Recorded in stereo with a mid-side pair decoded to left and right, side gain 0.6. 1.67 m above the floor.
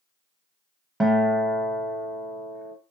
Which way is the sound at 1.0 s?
15° right.